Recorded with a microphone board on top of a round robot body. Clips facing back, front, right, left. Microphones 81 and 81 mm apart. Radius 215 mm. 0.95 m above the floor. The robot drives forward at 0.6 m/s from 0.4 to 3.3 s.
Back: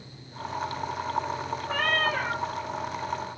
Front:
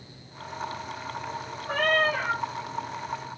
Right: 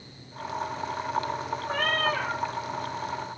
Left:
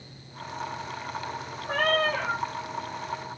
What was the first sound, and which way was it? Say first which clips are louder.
A cat meowing: front 3 dB, left 3 dB; 45° left.